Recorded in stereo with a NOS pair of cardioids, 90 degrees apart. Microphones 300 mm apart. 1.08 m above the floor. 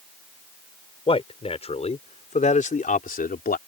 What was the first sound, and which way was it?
A man speaking, 20° left.